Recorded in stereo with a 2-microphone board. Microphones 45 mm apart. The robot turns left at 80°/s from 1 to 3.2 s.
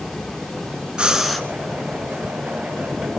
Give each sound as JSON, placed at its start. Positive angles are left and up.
{"t": 1.0, "sound": "breathing", "azimuth_deg": -155, "distance_m": 1.1}